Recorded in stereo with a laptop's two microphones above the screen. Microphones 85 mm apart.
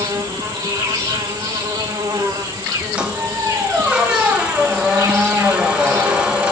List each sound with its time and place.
0.0 s an insect: 80° right, 2 m
3.0 s a squeak: 15° right (ahead or behind), 1.1 m